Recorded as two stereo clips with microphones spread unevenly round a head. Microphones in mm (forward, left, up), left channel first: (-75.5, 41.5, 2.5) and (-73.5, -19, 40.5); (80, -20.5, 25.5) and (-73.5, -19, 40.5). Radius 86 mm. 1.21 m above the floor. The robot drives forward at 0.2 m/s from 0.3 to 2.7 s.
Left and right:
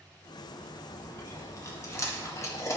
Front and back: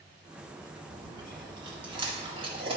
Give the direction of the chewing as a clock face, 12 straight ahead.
8 o'clock.